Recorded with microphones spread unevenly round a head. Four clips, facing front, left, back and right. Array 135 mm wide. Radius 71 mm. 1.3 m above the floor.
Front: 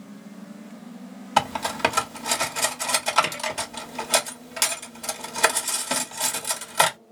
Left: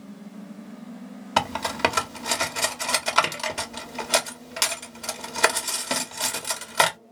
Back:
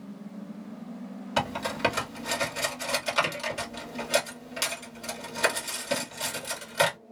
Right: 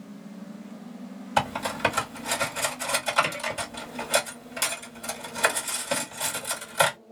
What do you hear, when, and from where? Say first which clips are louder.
1.4 s cutlery clinking: left 2 dB, front 6 dB; 65° left, 1.3 m